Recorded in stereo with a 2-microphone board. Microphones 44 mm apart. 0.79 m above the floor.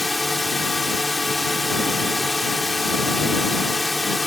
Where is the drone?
Centre (ahead or behind).